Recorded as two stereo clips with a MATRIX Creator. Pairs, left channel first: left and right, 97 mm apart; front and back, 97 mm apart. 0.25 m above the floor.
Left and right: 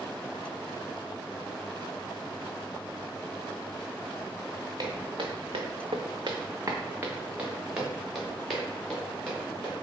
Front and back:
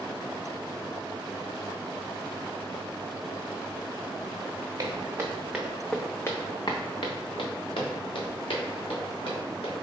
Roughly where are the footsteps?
Behind right.